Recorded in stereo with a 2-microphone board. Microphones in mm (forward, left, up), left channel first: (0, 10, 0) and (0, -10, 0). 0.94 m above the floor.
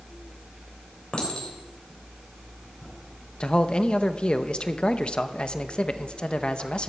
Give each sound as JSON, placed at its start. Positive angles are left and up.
{"t": 1.1, "sound": "a clink", "side_deg": 45, "distance_m": 3.5}
{"t": 3.4, "sound": "a man speaking", "side_deg": 50, "distance_m": 0.7}